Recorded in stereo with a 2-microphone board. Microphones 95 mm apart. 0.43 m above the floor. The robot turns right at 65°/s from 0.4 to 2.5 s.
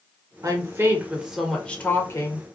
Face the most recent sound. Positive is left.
turn(degrees=70)